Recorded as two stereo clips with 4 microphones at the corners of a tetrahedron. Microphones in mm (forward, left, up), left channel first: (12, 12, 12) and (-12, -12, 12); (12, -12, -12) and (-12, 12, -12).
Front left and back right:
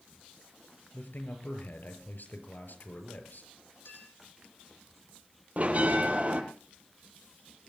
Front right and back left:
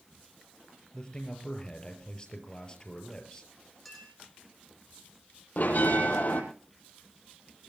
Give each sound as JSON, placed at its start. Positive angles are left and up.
{"t": 0.9, "sound": "a man speaking", "azimuth_deg": 20, "distance_m": 5.5}
{"t": 3.9, "sound": "a clink", "azimuth_deg": 40, "distance_m": 9.0}
{"t": 5.6, "sound": "a bell", "azimuth_deg": -85, "distance_m": 6.0}